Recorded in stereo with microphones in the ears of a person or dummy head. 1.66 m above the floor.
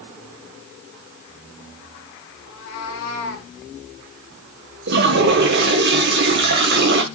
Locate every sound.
2.4 s a cat meowing: 60° left (ahead or behind), 4.5 m; by 3.5 s 50° left (ahead or behind), 4 m
4.9 s a toilet flushing: 60° right (ahead or behind), 1.8 m